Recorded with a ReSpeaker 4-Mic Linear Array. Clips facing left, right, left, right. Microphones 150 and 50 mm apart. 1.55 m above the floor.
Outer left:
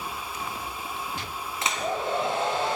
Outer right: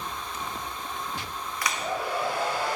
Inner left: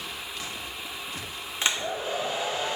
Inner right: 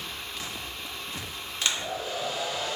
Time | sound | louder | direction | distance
1.6 | a hair dryer | outer left 2 dB, inner left 2 dB | 25° left (ahead or behind) | 0.7 m